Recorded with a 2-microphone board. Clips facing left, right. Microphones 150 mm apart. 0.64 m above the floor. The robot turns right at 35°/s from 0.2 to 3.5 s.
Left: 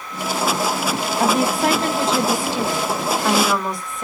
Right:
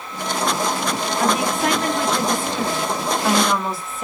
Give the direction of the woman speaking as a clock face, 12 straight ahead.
8 o'clock.